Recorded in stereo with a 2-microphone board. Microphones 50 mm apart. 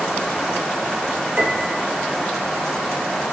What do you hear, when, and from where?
1.4 s a piano: 30° right (ahead or behind), 3 m